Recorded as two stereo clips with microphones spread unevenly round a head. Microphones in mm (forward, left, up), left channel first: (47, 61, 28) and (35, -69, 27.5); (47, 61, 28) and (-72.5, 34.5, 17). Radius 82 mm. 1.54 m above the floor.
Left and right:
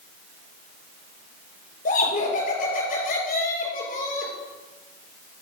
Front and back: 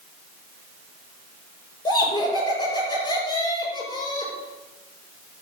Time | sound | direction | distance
1.9 | laughter | 70° left | 5.5 m